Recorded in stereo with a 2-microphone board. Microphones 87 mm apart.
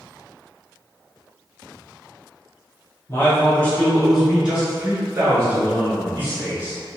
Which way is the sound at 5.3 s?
15° right (ahead or behind).